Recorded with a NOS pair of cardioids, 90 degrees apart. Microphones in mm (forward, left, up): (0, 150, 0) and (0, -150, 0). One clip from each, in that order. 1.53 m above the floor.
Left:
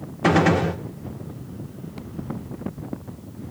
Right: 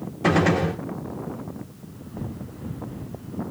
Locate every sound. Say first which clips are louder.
0.2 s a gunshot: left 2 dB; 15° left, 1.7 m